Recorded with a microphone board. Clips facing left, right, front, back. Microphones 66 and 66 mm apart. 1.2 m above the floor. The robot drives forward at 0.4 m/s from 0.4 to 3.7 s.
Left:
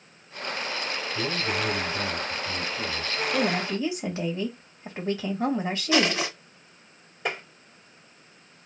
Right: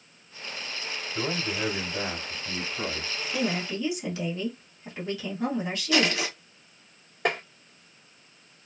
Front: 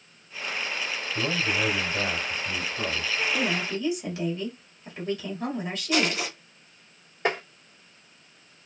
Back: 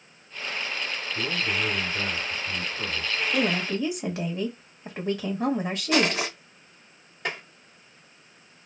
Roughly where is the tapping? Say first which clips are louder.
Right 4 dB, front 6 dB; ahead right.